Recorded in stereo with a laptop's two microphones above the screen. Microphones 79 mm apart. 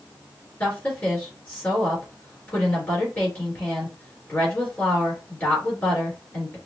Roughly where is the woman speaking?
Left.